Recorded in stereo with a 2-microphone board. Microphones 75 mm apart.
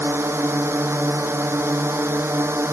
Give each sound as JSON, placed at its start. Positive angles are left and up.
{"t": 0.0, "sound": "a drone", "side_deg": -35}